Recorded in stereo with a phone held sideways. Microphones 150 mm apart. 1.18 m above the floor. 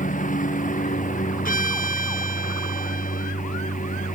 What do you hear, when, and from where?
0.0 s a lawn mower: 60° left (ahead or behind)
1.4 s a violin: 65° left (ahead or behind)